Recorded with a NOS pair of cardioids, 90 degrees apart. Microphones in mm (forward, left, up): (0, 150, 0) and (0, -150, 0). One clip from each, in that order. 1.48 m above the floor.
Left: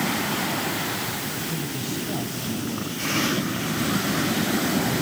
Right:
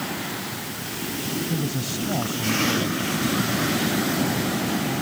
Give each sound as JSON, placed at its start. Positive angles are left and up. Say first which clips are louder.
{"t": 1.5, "sound": "a woman speaking", "louder": "right 1 dB", "azimuth_deg": -45}